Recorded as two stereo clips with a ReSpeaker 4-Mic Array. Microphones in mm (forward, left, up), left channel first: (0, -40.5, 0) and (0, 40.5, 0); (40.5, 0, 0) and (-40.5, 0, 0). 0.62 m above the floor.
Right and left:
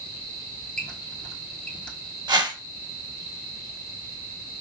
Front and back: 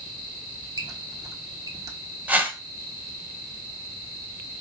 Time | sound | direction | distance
0.8 | a squeak | 165° right | 0.8 m
2.3 | a whoosh | 110° left | 0.7 m